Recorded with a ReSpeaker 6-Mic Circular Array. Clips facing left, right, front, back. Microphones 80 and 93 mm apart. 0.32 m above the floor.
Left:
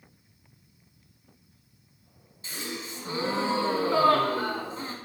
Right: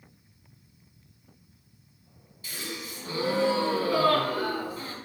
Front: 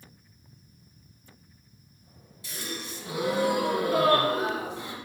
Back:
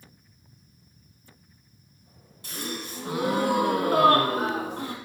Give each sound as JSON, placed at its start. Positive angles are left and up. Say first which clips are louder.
{"t": 2.4, "sound": "a gasp", "louder": "left 1 dB, back 3 dB", "azimuth_deg": 150, "distance_m": 1.3}